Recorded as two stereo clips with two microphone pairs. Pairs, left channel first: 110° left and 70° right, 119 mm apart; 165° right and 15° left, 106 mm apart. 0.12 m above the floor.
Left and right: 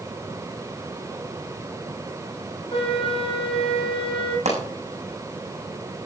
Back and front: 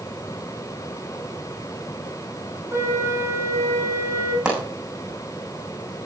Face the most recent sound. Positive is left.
turn(degrees=-65)